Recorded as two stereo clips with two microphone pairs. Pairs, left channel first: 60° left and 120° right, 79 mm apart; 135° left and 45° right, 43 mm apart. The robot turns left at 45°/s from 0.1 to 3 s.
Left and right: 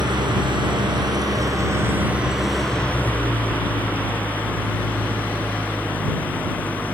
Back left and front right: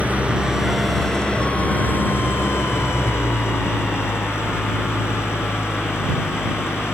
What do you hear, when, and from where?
0.0 s an engine running: 100° right; by 7.0 s 130° left